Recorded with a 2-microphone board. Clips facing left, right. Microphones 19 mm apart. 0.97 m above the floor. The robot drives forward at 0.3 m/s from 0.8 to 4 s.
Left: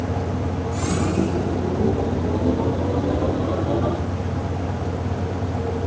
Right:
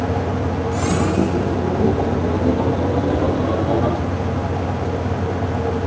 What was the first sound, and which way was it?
Only background noise.